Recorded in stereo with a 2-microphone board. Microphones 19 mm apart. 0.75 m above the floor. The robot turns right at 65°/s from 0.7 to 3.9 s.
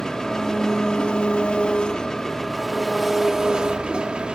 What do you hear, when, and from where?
0.0 s an engine running: 40° left, 1.0 m; by 4.3 s 110° right, 1.0 m